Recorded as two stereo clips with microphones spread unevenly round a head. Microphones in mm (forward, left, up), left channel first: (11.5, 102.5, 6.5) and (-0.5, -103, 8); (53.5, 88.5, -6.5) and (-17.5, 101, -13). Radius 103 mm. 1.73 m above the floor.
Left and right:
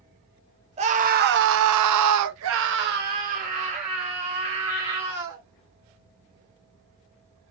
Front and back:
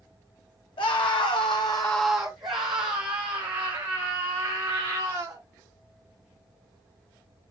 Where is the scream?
30° right, 0.8 m; by 5.4 s 165° right, 2 m.